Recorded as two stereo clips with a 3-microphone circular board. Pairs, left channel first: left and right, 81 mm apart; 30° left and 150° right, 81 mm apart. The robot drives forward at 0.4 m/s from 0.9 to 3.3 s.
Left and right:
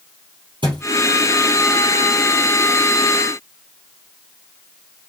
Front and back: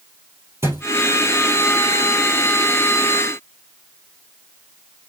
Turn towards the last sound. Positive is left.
turn(degrees=-110)